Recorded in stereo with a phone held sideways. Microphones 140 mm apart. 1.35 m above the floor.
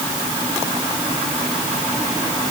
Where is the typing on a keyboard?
I don't hear typing on a keyboard.